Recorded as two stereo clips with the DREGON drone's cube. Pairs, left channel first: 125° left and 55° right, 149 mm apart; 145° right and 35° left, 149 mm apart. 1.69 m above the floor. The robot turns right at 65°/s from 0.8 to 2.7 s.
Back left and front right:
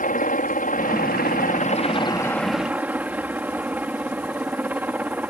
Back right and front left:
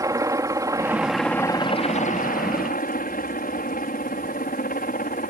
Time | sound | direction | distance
0.0 | a helicopter | 100° left | ?